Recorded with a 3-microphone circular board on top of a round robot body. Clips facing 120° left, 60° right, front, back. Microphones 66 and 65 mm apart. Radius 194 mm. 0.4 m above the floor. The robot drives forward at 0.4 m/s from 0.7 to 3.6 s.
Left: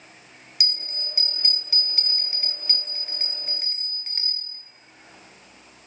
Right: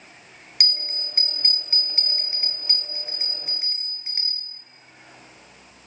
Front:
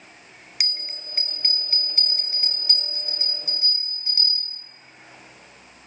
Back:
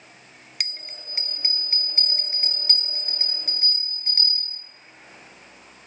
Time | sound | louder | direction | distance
0.6 | a bell | right 3 dB, front 2 dB | 85° right | 0.9 m